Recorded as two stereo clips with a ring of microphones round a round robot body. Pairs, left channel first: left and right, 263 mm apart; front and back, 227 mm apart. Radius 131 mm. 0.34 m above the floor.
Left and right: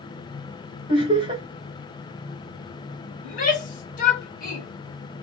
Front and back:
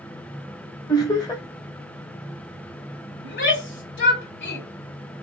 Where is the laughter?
50° right, 1.5 m.